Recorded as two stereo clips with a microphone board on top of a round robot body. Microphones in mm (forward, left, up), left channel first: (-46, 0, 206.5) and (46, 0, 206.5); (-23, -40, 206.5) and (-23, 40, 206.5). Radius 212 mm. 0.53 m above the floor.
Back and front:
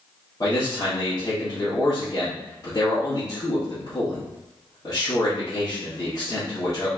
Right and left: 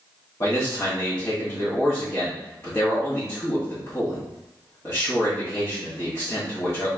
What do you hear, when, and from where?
0.4 s a man speaking: 135° right, 1.8 m